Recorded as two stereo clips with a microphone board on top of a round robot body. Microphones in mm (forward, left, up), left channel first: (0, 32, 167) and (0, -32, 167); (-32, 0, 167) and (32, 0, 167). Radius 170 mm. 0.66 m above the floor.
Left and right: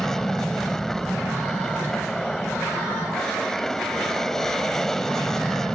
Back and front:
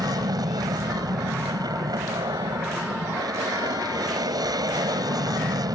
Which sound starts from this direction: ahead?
An aircraft, at 0.0 s.